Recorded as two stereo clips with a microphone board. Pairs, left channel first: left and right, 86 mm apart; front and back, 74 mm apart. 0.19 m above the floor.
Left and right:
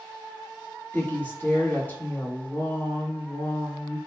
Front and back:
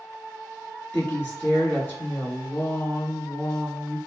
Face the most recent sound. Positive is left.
turn(degrees=40)